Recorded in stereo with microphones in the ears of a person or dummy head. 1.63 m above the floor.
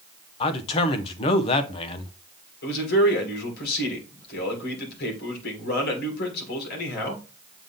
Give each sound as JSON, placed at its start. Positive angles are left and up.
{"t": 0.4, "sound": "a man speaking", "side_deg": 35, "distance_m": 1.0}
{"t": 2.6, "sound": "a man speaking", "side_deg": 60, "distance_m": 3.0}